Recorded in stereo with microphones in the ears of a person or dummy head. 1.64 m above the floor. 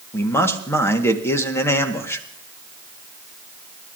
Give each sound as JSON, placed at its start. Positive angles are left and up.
{"t": 0.1, "sound": "a man speaking", "side_deg": 15, "distance_m": 1.2}